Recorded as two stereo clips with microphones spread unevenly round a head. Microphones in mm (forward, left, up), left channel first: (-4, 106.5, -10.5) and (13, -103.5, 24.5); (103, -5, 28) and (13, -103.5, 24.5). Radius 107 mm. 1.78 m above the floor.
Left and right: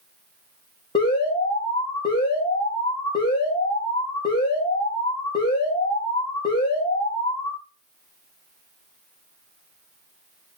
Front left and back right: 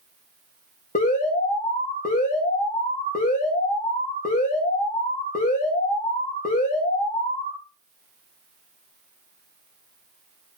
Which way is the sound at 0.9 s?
25° left.